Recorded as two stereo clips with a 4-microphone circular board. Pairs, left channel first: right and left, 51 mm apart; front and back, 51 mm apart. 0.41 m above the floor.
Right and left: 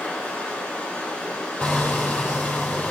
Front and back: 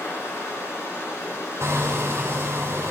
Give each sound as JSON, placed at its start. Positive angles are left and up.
{"t": 0.0, "sound": "running water", "azimuth_deg": -25, "distance_m": 4.0}
{"t": 1.6, "sound": "hammering", "azimuth_deg": -155, "distance_m": 3.5}